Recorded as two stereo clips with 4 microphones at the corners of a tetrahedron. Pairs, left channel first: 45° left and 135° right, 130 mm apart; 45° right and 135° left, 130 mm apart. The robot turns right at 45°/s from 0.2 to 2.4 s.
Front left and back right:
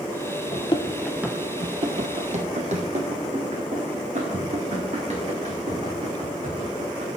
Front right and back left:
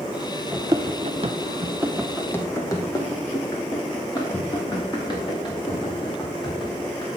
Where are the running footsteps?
60° left, 0.6 m; by 7.1 s 95° right, 3.5 m.